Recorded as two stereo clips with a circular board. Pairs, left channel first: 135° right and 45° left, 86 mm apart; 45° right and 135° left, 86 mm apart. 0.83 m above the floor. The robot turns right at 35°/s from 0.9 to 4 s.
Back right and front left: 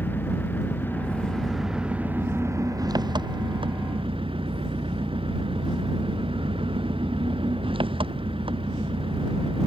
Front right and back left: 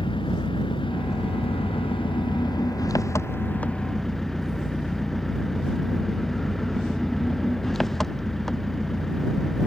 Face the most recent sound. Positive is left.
turn(degrees=40)